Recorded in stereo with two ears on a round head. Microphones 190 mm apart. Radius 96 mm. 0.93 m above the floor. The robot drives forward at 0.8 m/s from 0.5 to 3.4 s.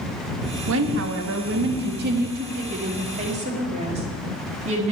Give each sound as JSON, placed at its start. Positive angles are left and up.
{"t": 0.7, "sound": "a woman speaking", "side_deg": -65, "distance_m": 1.5}